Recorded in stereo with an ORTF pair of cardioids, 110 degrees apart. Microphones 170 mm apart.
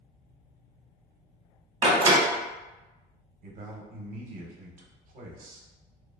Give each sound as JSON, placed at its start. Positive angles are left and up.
{"t": 1.8, "sound": "a door slam", "azimuth_deg": -25, "distance_m": 0.8}
{"t": 3.4, "sound": "a man speaking", "azimuth_deg": -55, "distance_m": 0.7}